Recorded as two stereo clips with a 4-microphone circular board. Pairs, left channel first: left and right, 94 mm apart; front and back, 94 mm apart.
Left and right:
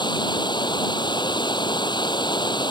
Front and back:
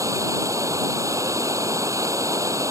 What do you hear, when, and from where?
0.0 s running water: 125° left